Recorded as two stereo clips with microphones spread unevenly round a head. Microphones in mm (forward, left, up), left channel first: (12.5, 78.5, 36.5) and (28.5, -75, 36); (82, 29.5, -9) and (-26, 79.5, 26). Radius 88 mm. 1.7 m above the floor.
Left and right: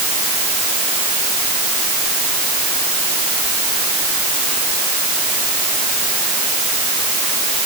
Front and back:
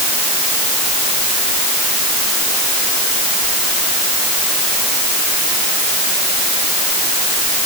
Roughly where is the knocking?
No knocking in this recording.